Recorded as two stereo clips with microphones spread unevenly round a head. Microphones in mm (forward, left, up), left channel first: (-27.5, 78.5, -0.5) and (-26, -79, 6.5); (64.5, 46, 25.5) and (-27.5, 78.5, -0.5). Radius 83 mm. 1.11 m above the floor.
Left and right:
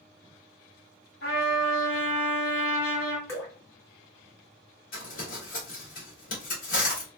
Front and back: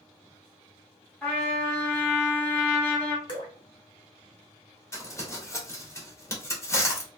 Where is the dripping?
15° left, 1.3 m.